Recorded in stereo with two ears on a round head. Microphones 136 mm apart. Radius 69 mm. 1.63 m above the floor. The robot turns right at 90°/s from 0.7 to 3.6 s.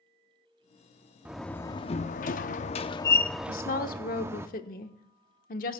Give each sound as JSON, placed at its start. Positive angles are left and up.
{"t": 1.2, "sound": "a door slam", "azimuth_deg": -10, "distance_m": 0.6}
{"t": 3.5, "sound": "a woman speaking", "side_deg": 70, "distance_m": 1.1}